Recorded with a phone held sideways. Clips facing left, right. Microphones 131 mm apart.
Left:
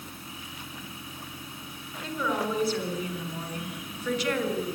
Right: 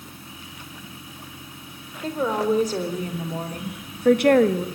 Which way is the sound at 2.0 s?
40° right (ahead or behind).